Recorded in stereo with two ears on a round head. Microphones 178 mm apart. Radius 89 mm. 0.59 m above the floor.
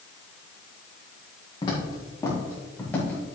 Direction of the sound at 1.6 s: 20° left (ahead or behind).